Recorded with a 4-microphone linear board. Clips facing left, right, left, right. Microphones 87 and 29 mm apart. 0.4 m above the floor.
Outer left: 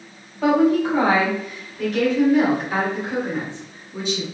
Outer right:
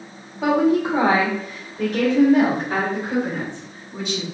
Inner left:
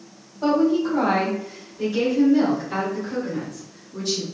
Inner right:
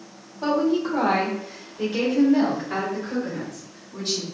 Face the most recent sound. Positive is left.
turn(degrees=-50)  # may be behind; listen again after turning